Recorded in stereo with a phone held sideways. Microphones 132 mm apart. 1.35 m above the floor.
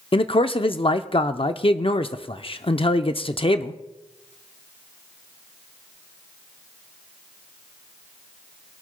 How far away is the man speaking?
About 0.6 m.